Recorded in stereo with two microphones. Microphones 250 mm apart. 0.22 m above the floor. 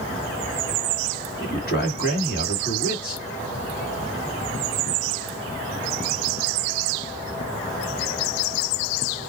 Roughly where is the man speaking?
Left.